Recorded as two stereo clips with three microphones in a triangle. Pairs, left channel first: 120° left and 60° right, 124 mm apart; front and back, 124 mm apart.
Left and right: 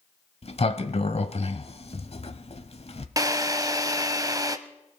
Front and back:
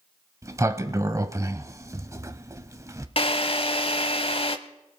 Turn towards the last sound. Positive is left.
turn(degrees=-10)